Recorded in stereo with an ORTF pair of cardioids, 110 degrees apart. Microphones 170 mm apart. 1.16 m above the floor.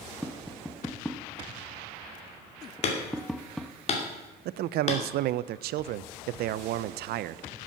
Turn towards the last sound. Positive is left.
turn(degrees=-70)